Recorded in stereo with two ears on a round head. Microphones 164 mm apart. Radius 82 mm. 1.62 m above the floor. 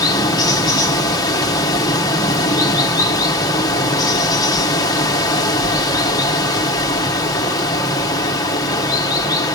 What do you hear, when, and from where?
0.0 s running water: 20° left (ahead or behind), 0.8 m